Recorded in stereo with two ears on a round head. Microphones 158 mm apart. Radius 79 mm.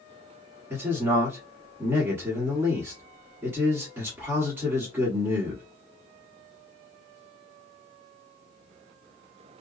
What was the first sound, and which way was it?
A man speaking, 10° right (ahead or behind).